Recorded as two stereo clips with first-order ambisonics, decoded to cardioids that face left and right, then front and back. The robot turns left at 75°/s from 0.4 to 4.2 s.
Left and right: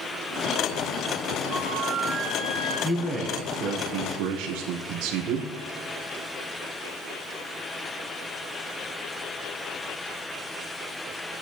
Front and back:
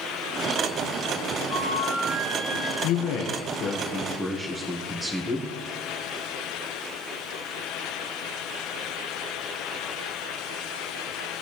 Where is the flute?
10° right, 7 m; by 2.7 s 105° right, 7 m.